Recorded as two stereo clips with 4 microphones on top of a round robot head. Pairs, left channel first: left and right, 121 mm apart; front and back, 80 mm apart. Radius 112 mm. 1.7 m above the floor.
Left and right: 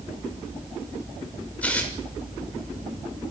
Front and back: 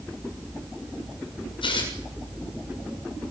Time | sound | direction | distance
1.6 | tearing paper | 10° left | 6.5 m